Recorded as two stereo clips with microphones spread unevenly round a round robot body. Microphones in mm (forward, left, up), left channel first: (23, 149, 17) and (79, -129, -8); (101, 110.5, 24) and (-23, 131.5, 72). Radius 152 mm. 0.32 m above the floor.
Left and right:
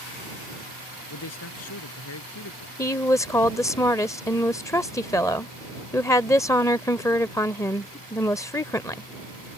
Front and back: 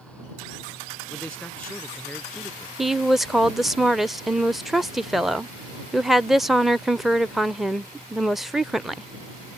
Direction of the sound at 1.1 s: 65° left.